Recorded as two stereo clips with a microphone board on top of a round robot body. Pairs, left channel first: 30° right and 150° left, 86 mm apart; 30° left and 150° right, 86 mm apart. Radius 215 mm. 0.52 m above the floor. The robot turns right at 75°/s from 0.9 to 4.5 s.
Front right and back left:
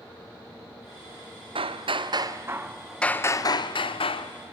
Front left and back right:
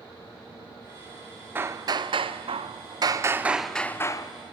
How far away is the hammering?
About 0.7 m.